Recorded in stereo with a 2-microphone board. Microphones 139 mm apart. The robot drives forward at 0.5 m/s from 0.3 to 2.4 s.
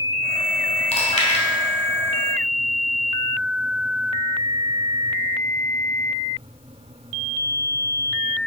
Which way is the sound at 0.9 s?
50° left (ahead or behind).